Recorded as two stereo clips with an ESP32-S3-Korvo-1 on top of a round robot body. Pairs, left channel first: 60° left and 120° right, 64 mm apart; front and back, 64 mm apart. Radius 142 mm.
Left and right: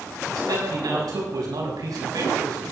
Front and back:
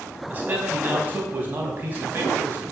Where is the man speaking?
120° right, 5.5 m.